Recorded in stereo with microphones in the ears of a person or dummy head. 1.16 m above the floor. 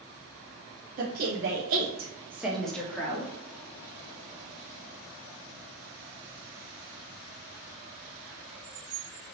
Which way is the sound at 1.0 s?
50° right (ahead or behind).